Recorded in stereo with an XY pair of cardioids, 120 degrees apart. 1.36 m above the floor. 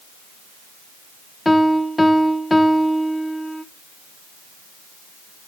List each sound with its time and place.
1.4 s a piano: 15° left, 0.7 m